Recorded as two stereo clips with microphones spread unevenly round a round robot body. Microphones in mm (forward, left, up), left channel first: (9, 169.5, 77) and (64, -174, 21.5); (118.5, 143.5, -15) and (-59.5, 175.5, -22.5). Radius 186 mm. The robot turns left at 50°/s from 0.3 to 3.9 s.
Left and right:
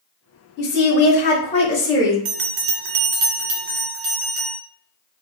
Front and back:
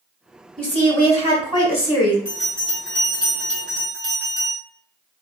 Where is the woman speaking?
80° left, 0.8 m; by 2.1 s straight ahead, 0.8 m.